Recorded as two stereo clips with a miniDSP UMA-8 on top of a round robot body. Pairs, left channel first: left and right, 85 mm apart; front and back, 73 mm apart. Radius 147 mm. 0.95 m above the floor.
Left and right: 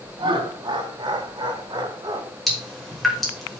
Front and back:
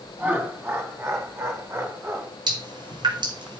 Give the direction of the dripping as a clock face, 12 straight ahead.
6 o'clock.